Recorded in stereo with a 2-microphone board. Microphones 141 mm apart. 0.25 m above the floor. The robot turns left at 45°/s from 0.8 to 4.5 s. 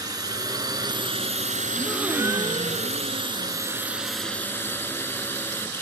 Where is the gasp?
Straight ahead; by 3.6 s 85° right.